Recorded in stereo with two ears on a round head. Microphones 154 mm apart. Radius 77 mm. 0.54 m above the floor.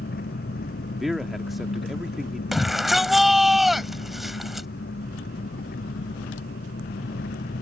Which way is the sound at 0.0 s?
60° left (ahead or behind).